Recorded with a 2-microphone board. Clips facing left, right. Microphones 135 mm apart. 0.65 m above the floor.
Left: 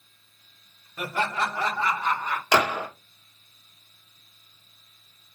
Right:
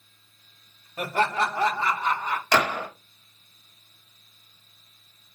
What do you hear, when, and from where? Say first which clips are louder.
1.0 s laughter: right 3 dB; 40° right (ahead or behind), 1.5 m; by 2.4 s 20° right (ahead or behind), 2.5 m
2.5 s a gunshot: left 1 dB; 10° left (ahead or behind), 1.1 m